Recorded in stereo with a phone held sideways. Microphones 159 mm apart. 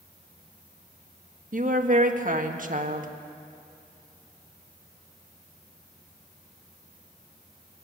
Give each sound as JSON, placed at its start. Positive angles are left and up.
{"t": 1.5, "sound": "a woman speaking", "side_deg": -55, "distance_m": 1.6}